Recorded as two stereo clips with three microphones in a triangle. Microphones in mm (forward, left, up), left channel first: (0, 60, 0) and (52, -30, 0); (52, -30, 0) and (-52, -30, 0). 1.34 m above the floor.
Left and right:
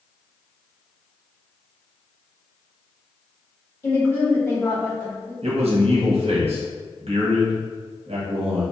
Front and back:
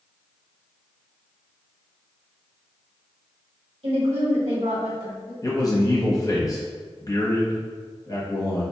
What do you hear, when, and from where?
3.8 s a woman speaking: 175° right, 1.7 m
5.4 s a man speaking: 55° right, 1.1 m